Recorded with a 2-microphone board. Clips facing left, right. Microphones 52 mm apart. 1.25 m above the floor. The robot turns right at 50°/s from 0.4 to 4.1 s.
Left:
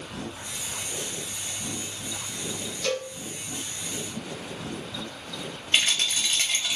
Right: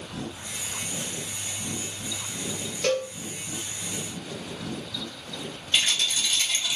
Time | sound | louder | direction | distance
2.8 | a cowbell | right 4 dB | 55° right (ahead or behind) | 0.6 m
5.7 | a rattle | left 1 dB | 40° left (ahead or behind) | 0.8 m